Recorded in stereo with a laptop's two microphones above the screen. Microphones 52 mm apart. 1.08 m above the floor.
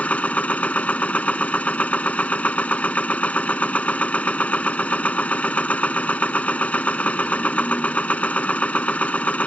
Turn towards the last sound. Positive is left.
turn(degrees=25)  # may be behind; listen again after turning